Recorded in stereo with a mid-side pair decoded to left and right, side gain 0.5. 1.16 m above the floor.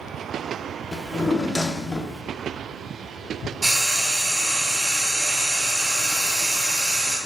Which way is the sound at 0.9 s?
10° left.